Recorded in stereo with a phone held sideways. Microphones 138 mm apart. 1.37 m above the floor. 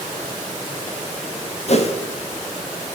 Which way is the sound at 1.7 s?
50° left (ahead or behind).